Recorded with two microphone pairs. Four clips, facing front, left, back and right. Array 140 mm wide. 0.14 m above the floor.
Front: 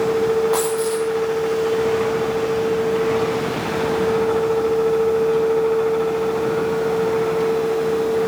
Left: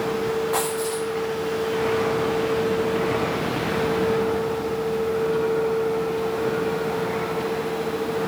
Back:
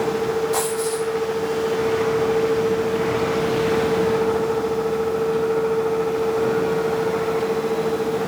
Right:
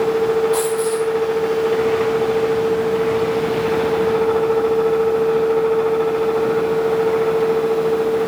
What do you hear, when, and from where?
0.5 s a dropped coin: 5° left, 9 m